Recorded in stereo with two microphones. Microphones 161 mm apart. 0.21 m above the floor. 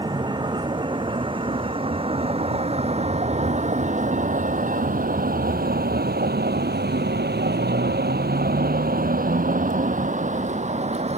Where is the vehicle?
25° right (ahead or behind); by 11.2 s 40° right (ahead or behind).